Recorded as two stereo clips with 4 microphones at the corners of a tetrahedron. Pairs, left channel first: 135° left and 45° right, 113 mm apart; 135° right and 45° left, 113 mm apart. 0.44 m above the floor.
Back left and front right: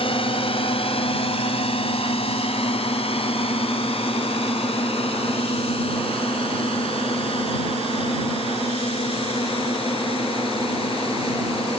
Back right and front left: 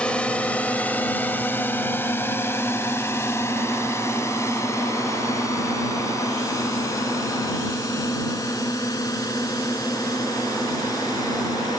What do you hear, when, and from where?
0.0 s a drone: 145° left; by 11.8 s 170° left